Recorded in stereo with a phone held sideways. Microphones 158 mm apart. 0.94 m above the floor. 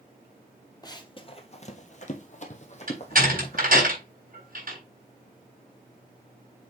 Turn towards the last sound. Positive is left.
turn(degrees=-65)  # may be behind; listen again after turning